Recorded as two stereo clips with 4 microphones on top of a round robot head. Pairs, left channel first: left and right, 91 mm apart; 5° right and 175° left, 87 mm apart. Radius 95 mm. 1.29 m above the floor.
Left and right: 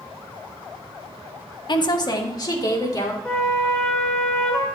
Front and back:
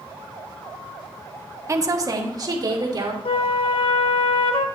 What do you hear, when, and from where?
1.7 s a woman speaking: 125° left, 1.1 m; by 3.1 s 135° left, 3 m
3.2 s a flute: 10° left, 0.9 m